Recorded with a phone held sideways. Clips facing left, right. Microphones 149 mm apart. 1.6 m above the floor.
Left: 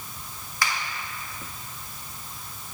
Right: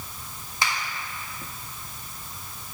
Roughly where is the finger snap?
Right.